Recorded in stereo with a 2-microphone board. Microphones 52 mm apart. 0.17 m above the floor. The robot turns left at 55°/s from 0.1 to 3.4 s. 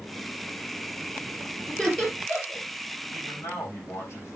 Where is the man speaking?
80° left, 7.5 m; by 4.4 s 65° left (ahead or behind), 7.5 m.